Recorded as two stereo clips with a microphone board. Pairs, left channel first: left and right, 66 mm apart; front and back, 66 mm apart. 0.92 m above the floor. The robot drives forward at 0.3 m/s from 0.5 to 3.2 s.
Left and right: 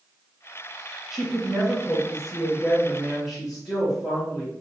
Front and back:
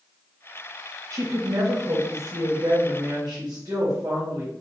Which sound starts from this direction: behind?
A woman speaking, at 1.1 s.